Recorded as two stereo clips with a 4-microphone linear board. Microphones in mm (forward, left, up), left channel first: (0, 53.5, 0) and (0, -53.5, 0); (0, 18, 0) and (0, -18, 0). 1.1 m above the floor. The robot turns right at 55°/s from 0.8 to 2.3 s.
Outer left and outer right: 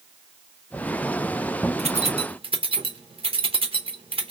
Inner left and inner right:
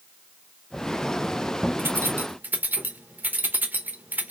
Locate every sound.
1.8 s keys jangling: 85° right, 0.7 m; by 4.3 s 60° right (ahead or behind), 0.7 m